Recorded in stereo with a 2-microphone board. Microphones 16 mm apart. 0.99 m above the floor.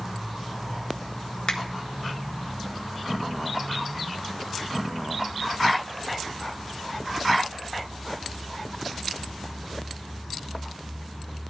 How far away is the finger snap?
About 1.6 m.